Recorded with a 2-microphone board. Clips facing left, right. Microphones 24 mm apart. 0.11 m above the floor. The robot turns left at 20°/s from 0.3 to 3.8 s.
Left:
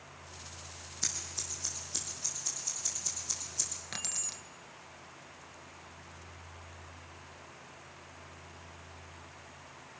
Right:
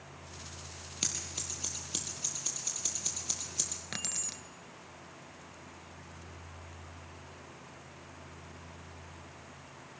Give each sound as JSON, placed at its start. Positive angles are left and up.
{"t": 1.0, "sound": "scissors", "side_deg": -65, "distance_m": 4.0}
{"t": 3.9, "sound": "keys jangling", "side_deg": -10, "distance_m": 1.0}